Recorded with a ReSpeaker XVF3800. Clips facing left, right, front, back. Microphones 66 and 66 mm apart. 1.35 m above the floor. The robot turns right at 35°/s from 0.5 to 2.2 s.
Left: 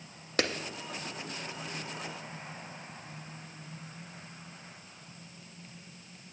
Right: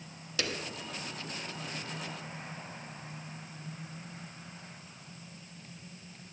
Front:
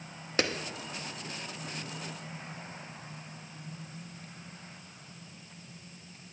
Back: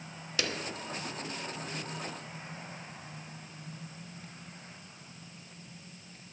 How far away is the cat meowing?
I don't hear a cat meowing.